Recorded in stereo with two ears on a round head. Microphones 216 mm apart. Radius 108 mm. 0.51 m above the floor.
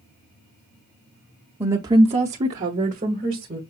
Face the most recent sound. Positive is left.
turn(degrees=-30)  # may be behind; listen again after turning